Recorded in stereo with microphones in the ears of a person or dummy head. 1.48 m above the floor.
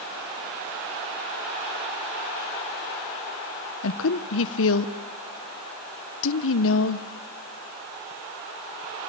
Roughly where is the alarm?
I don't hear an alarm.